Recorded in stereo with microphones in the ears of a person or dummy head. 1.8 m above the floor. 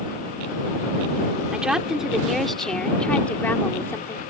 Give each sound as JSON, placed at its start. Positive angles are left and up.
{"t": 1.5, "sound": "a woman speaking", "side_deg": -5}